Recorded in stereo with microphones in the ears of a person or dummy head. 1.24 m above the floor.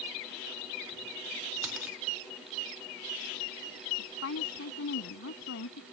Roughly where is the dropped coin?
Centre.